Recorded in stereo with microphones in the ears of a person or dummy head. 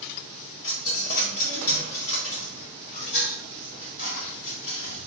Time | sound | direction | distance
0.6 | a dropped coin | 35° left (ahead or behind) | 0.9 m